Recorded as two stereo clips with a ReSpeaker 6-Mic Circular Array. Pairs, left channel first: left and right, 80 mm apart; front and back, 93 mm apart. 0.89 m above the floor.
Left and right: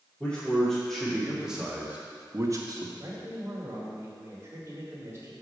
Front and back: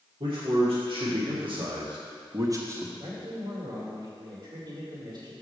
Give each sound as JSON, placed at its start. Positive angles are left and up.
{"t": 0.2, "sound": "a man speaking", "azimuth_deg": 165, "distance_m": 2.0}
{"t": 3.0, "sound": "a man speaking", "azimuth_deg": -150, "distance_m": 2.0}